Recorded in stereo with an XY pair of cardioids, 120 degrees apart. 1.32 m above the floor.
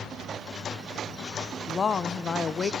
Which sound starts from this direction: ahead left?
A woman speaking, at 1.7 s.